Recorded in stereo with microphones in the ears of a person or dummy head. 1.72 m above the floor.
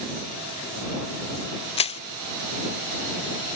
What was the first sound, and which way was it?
Crushing, 35° left (ahead or behind).